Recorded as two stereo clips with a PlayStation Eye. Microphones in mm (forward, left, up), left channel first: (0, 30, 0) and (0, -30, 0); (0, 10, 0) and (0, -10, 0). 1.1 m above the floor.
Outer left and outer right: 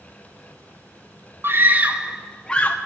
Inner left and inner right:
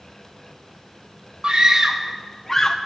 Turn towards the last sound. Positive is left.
turn(degrees=30)  # may be behind; listen again after turning